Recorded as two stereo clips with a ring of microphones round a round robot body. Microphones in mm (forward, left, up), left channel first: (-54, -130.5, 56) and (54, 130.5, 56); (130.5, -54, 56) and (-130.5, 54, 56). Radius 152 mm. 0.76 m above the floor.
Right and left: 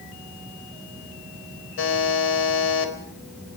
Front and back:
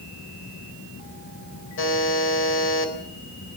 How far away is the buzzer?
About 4 m.